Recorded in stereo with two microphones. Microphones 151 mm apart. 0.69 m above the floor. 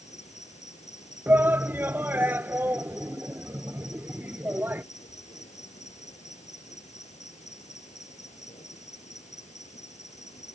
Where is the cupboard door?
No cupboard door in this recording.